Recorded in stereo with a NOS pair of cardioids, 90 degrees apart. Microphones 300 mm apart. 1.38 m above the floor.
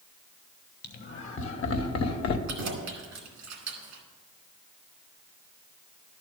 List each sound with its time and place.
0.8 s laughter: 35° left, 1.8 m; by 2.4 s 65° left, 1.3 m
2.5 s keys jangling: 70° right, 2 m